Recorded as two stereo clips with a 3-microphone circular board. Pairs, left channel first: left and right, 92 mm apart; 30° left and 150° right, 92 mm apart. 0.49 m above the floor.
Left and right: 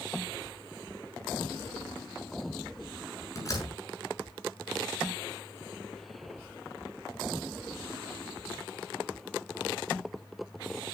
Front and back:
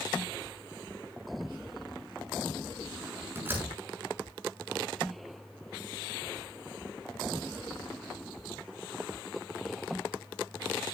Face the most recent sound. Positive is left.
turn(degrees=145)